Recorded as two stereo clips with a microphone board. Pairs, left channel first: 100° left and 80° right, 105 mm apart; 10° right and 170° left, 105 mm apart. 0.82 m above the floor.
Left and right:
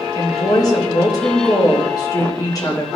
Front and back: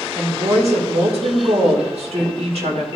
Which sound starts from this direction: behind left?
A woman speaking, at 0.1 s.